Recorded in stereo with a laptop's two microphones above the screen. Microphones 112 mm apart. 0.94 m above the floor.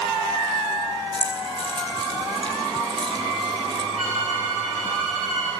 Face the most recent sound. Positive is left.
turn(degrees=-85)